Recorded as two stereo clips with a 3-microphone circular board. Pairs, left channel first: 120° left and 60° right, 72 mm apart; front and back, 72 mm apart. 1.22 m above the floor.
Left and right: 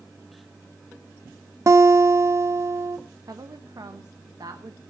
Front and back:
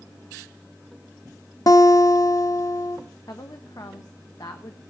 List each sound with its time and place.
1.7 s a guitar: 20° right, 0.8 m
3.3 s a woman speaking: 30° right, 1.2 m